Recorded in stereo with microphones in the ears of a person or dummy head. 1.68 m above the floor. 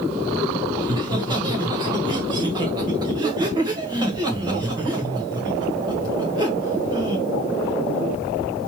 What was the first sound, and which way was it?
Laughter, 25° right (ahead or behind).